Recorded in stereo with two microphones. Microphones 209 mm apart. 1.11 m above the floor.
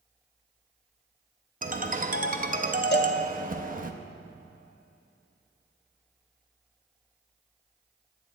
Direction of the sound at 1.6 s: 40° right (ahead or behind).